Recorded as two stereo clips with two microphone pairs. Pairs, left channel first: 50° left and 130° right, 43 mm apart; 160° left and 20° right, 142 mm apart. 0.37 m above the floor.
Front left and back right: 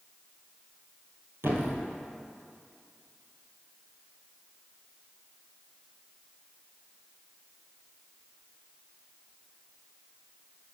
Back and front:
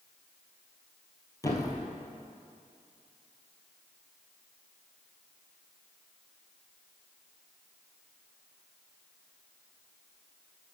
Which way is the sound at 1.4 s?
130° right.